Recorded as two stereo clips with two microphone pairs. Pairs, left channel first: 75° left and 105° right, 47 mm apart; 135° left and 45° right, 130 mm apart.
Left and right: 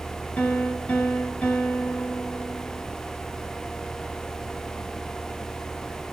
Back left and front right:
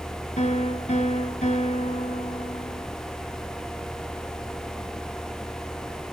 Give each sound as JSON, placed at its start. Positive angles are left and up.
{"t": 0.4, "sound": "a piano", "azimuth_deg": 125, "distance_m": 2.0}